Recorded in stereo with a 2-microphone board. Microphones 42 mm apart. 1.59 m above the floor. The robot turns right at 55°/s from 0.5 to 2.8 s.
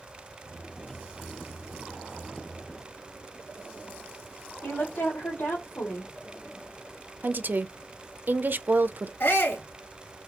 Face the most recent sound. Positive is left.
turn(degrees=75)  # may be behind; listen again after turning